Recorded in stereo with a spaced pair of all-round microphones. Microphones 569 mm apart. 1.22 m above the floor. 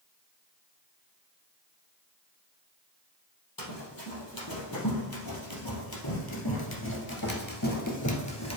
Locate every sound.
3.6 s running footsteps: 35° left (ahead or behind), 2.5 m; by 8.6 s 25° left (ahead or behind), 1.4 m